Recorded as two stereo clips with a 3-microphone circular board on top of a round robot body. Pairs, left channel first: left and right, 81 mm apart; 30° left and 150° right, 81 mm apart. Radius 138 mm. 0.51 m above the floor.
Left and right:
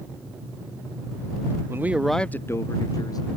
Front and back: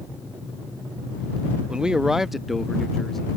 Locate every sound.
1.7 s a man speaking: 80° right; by 3.3 s 115° left